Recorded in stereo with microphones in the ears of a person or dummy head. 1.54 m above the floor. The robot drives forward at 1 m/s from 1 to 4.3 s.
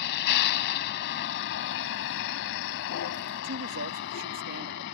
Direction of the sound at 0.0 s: 65° left (ahead or behind).